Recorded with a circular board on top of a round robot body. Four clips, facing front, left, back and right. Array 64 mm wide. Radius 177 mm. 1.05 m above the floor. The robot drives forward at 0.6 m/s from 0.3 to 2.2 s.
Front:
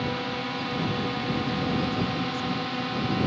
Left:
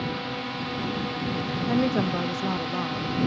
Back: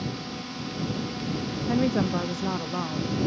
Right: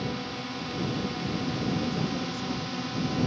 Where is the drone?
30° left; by 3.3 s 40° left.